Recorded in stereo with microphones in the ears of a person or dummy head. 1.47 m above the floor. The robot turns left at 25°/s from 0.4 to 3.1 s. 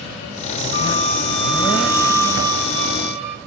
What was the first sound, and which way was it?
A flute, 20° left.